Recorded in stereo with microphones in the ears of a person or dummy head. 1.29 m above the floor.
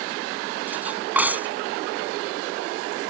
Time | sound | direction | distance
0.7 | cutlery clinking | 5° right (ahead or behind) | ?